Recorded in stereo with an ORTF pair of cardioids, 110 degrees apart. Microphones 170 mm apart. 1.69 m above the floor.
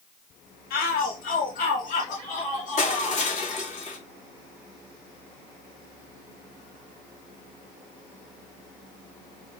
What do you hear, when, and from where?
0.7 s a shout: 65° left, 1.7 m; by 3.2 s 45° left, 4 m
2.8 s crushing: 40° left, 3 m